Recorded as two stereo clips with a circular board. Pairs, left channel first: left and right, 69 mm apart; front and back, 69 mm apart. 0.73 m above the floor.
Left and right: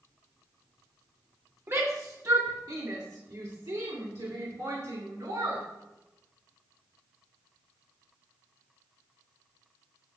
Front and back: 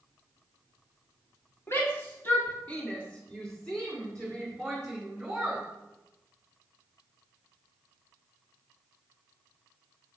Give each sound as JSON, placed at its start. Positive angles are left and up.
{"t": 1.7, "sound": "a shout", "azimuth_deg": -45, "distance_m": 1.7}